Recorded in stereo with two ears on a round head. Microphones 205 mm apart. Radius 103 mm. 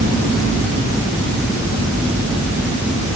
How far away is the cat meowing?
I don't hear a cat meowing.